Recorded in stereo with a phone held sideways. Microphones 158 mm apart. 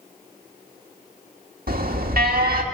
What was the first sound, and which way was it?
An alarm, 75° right (ahead or behind).